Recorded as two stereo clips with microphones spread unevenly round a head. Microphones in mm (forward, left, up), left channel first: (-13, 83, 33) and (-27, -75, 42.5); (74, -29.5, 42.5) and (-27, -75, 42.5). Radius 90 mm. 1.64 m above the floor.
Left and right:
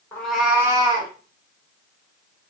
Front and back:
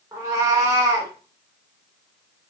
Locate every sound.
0.1 s a cat meowing: 160° left, 0.8 m; by 1.1 s 115° right, 0.9 m